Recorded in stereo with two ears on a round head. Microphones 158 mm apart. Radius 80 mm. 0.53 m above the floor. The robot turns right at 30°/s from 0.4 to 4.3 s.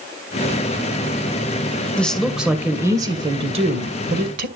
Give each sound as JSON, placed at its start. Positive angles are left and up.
{"t": 2.0, "sound": "a woman speaking", "azimuth_deg": 170, "distance_m": 2.5}